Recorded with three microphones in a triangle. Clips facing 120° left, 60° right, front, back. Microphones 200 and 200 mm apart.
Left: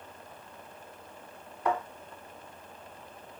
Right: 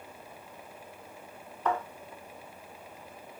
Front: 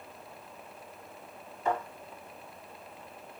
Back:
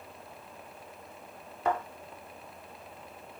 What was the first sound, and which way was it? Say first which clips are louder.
A thud: even, back 1 dB; 165° right.